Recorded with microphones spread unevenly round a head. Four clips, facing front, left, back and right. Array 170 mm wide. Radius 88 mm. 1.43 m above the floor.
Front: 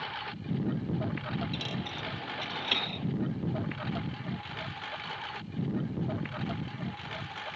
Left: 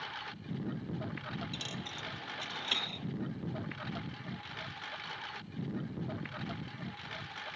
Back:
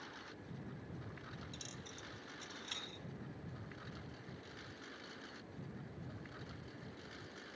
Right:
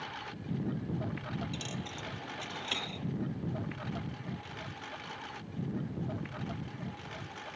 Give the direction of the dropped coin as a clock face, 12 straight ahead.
12 o'clock.